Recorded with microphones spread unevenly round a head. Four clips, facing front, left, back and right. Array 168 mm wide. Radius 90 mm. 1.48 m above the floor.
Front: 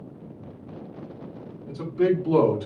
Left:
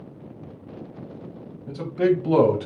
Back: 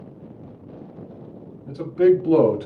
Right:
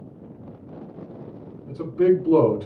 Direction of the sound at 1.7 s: 110° left.